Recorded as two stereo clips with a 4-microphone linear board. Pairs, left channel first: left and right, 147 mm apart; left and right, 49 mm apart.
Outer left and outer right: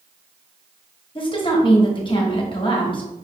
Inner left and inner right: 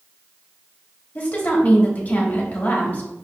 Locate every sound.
1.1 s a woman speaking: 35° left (ahead or behind), 1.1 m